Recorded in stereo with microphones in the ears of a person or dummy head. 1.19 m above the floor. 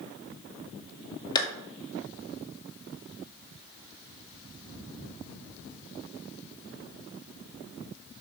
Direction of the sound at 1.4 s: 25° left (ahead or behind).